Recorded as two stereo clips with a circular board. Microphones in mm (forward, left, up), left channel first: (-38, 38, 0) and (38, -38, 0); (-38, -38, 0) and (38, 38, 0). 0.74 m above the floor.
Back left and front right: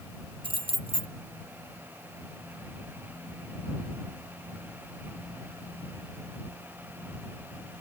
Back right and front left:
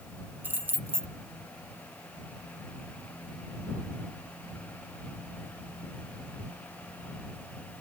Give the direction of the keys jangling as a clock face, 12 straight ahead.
1 o'clock.